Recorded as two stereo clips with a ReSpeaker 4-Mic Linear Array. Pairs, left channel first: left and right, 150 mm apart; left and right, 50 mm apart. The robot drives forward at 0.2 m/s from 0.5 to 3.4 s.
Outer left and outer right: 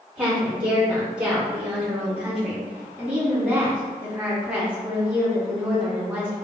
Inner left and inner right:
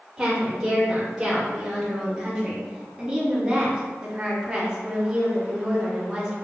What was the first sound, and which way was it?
A woman speaking, 10° right (ahead or behind).